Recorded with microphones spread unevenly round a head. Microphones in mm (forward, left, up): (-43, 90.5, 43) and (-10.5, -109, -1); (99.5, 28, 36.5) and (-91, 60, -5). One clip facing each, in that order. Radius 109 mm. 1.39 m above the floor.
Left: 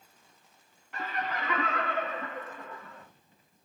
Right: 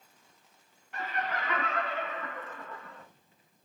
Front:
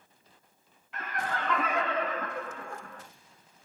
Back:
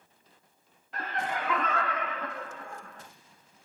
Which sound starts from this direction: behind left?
Laughter, at 0.9 s.